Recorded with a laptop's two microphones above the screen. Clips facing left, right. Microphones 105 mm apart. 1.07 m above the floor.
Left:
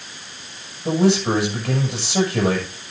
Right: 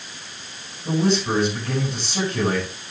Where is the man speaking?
85° left, 7.5 m.